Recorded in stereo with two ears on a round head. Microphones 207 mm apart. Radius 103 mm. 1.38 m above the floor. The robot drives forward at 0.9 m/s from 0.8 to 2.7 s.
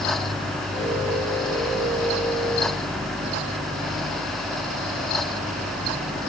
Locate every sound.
Only background noise.